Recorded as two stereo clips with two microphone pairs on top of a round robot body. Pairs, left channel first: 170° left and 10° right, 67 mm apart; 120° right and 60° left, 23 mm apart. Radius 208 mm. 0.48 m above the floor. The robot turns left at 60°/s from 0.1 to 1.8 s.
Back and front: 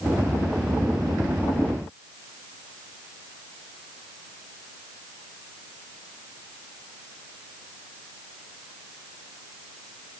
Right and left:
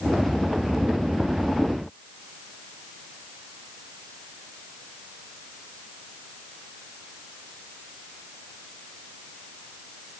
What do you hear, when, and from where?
Only background noise.